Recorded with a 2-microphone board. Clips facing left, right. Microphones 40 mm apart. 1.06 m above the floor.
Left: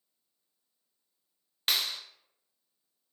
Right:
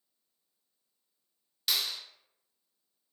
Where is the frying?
No frying in this recording.